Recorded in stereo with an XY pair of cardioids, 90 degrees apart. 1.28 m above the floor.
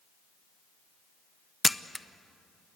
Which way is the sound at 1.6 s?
10° left.